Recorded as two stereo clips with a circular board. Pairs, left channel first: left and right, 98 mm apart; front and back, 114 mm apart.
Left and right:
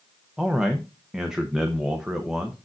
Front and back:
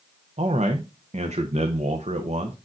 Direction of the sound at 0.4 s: 170° right.